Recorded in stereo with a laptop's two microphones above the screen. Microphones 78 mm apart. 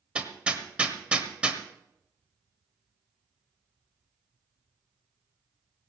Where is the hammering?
15° right (ahead or behind), 1.3 m.